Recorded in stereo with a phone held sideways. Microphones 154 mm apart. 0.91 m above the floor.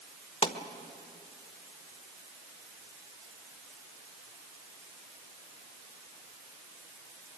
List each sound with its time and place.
0.4 s a pop: 40° left (ahead or behind), 1.3 m